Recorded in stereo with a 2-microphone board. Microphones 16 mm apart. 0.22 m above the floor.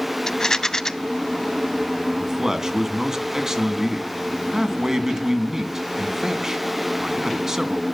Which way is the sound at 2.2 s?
30° right (ahead or behind).